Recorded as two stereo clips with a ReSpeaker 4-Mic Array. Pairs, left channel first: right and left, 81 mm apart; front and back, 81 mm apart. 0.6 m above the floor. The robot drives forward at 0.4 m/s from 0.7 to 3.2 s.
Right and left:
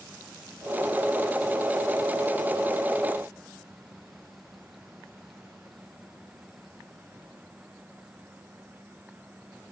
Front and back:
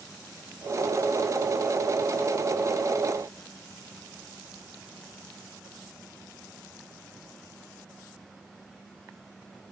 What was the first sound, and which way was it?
Only background noise.